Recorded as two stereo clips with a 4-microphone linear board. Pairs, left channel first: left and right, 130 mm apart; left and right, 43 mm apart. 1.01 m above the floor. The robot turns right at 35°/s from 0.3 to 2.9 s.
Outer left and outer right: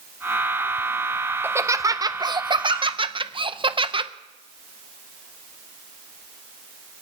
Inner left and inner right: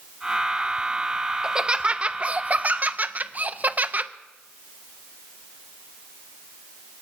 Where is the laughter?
155° right, 0.6 m; by 4.1 s 105° right, 0.6 m.